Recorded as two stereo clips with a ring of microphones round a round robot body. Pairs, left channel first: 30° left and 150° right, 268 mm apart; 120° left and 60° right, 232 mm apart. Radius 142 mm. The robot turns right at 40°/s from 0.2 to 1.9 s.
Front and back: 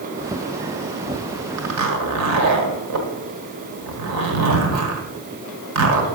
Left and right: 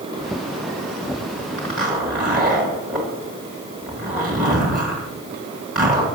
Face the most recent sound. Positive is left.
turn(degrees=-150)